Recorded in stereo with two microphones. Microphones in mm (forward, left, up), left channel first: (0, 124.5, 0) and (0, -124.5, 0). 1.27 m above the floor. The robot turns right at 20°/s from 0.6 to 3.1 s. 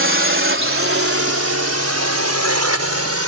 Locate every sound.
0.0 s a drone: 55° right (ahead or behind); by 3.3 s 75° right (ahead or behind)